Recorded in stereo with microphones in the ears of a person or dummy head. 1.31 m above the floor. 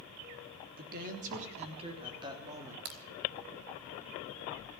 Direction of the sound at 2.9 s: 50° right (ahead or behind).